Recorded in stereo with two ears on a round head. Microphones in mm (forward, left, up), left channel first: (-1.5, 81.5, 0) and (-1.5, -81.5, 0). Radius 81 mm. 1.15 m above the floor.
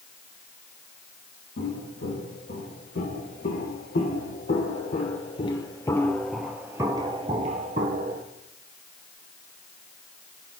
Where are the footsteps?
60° left (ahead or behind), 4 m; by 8.2 s 50° right (ahead or behind), 1.8 m.